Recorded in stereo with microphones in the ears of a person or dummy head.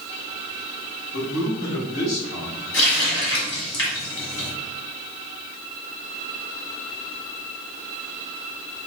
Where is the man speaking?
65° left (ahead or behind), 1.5 m; by 2.6 s 55° left (ahead or behind), 2.5 m.